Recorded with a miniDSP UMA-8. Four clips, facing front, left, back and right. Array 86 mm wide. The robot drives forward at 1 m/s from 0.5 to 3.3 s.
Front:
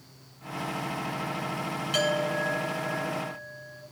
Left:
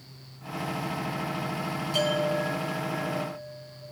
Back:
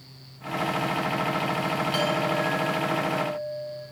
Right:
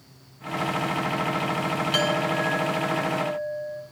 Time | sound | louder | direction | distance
1.9 | a clink | left 1 dB, front 1 dB | 70° right | 5 m